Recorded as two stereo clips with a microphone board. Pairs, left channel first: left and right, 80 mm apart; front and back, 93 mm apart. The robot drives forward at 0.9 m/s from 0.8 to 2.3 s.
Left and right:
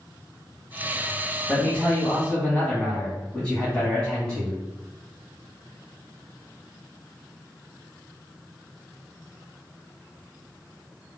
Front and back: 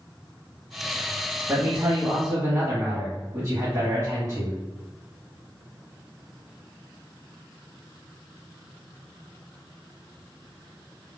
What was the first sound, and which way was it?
A man speaking, 150° left.